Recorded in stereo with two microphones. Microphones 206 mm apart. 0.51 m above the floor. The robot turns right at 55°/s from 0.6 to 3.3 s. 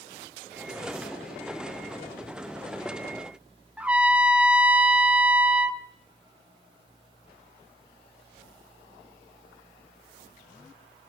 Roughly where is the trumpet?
Centre.